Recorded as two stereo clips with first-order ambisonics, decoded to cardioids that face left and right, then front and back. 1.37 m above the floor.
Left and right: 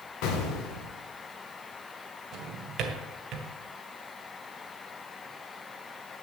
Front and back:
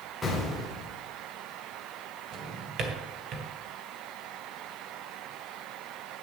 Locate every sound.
0.2 s an explosion: 85° left, 2 m
2.3 s a drawer: 130° right, 1.8 m